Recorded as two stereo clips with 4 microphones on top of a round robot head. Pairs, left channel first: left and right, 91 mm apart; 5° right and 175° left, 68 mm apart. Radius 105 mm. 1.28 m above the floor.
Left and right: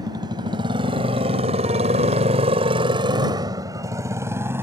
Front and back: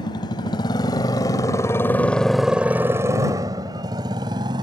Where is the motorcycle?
35° right; by 4.6 s 155° right.